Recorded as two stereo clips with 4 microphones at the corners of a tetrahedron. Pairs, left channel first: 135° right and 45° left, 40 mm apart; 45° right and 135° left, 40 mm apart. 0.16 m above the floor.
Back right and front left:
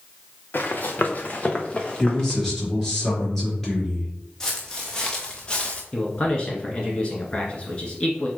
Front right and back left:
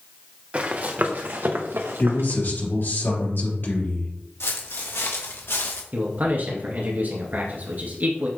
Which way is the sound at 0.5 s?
170° right.